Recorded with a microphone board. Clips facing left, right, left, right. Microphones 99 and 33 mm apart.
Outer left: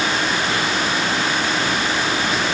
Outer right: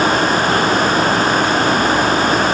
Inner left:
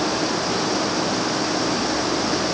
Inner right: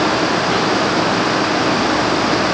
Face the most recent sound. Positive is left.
No sound to turn to.